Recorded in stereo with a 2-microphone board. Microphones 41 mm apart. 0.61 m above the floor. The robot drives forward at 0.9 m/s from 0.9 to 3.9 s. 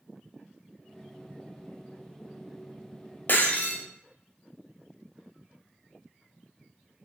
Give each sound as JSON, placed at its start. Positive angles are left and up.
{"t": 3.3, "sound": "breaking glass", "side_deg": 50, "distance_m": 1.5}